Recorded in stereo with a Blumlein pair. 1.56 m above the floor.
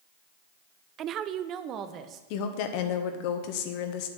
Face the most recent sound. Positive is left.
turn(degrees=45)